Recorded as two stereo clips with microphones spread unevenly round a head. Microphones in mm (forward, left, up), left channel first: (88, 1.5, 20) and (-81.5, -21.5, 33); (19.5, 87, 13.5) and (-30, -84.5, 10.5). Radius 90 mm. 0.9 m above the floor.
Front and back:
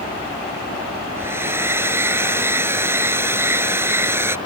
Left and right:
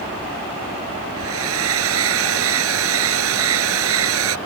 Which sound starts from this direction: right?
A hair dryer, at 1.2 s.